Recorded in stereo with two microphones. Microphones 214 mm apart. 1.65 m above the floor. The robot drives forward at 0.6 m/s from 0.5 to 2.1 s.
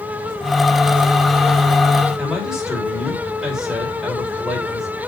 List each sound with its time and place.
2.2 s a man speaking: centre (ahead or behind), 3 m